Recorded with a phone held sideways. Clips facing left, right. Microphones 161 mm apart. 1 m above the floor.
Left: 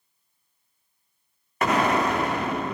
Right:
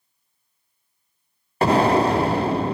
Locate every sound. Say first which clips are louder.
1.6 s an explosion: right 5 dB; 35° right (ahead or behind), 0.6 m